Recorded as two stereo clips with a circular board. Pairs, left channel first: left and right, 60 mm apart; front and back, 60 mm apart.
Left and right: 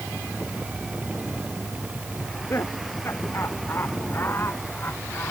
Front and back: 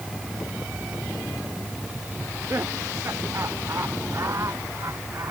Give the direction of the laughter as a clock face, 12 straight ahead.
8 o'clock.